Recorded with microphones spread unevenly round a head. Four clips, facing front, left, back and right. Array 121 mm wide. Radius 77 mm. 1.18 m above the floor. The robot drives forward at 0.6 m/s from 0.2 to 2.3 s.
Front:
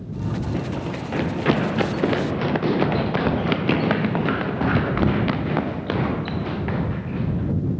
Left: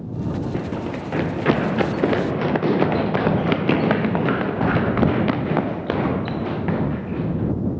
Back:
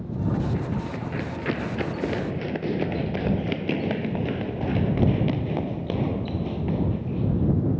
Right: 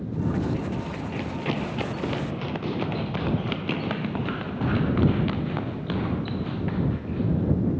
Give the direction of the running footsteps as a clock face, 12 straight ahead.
9 o'clock.